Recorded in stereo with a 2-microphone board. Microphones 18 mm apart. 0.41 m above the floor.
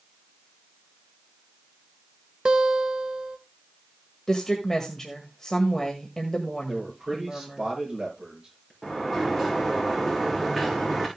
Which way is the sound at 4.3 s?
25° left (ahead or behind).